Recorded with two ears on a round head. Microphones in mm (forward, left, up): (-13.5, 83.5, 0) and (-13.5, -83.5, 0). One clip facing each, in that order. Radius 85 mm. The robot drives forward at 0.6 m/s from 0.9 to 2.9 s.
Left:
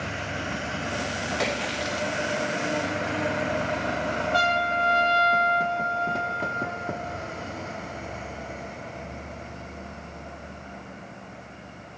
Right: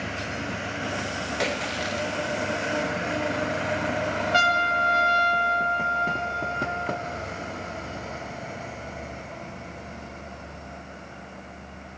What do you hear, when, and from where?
1.4 s a splash: centre (ahead or behind), 1.1 m
4.3 s a trumpet: 25° right (ahead or behind), 1.2 m